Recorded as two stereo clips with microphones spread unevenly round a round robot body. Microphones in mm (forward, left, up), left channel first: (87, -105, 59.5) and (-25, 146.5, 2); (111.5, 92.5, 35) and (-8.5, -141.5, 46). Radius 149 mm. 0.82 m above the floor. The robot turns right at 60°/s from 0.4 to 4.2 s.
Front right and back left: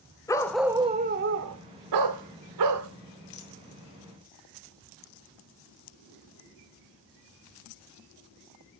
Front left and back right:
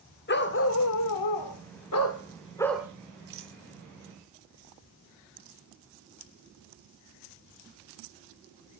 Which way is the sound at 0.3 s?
10° left.